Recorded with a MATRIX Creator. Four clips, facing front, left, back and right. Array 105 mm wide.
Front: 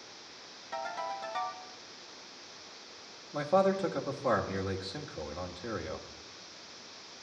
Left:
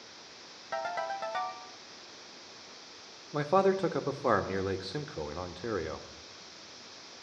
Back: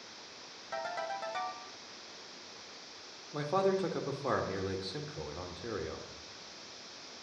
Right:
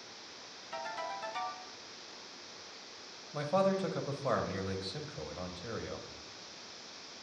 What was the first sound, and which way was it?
A ringtone, 100° left.